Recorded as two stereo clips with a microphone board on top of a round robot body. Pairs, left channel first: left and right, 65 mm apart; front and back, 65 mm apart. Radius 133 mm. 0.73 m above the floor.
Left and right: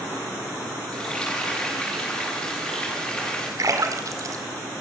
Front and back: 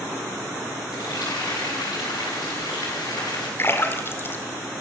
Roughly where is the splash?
Ahead right.